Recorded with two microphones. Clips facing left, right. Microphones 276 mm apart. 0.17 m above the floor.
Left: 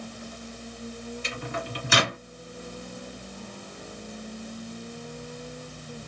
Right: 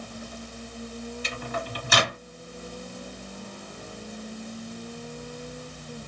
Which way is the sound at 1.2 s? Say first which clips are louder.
Even; 30° left (ahead or behind).